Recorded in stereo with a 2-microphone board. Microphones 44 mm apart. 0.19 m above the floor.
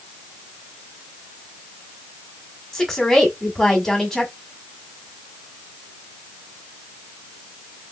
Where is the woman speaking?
10° left (ahead or behind), 1.2 m.